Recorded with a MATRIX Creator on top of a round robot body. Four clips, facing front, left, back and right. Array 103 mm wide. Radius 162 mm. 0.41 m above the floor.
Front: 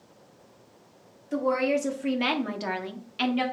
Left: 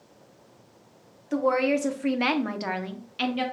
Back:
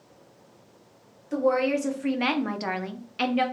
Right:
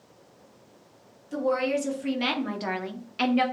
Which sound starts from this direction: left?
A woman speaking, at 1.3 s.